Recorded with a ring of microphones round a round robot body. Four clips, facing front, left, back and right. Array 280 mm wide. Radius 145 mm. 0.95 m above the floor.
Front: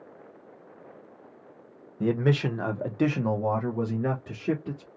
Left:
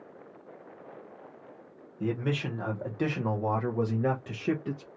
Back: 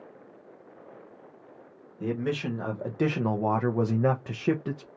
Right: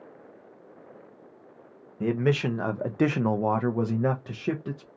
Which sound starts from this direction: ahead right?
A man speaking, at 2.0 s.